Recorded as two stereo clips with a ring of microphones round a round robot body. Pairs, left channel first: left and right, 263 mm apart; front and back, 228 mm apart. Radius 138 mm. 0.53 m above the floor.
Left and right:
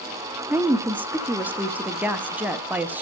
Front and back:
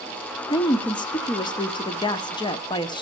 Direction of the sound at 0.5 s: 20° right.